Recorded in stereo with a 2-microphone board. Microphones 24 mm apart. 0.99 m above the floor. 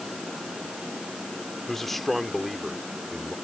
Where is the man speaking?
15° left (ahead or behind); by 3.4 s 10° right (ahead or behind).